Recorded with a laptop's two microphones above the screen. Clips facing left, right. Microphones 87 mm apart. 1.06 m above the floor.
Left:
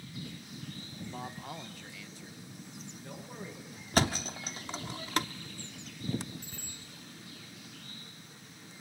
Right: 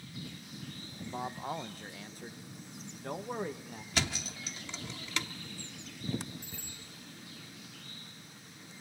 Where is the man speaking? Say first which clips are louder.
Right 6 dB; 15° right (ahead or behind), 0.9 m; by 3.8 s 65° right (ahead or behind), 1.5 m.